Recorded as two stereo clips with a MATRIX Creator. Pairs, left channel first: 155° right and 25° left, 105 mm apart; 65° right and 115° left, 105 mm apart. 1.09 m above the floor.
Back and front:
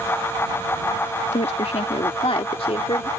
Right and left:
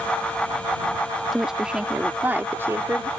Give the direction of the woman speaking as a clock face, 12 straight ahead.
5 o'clock.